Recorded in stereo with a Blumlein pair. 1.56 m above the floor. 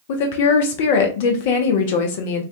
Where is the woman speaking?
50° left, 0.6 m.